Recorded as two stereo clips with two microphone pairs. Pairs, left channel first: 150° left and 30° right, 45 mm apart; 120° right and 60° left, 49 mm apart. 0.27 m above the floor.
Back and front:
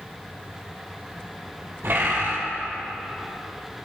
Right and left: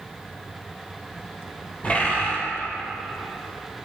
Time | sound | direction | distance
1.8 | a bird | 60° right | 2.5 m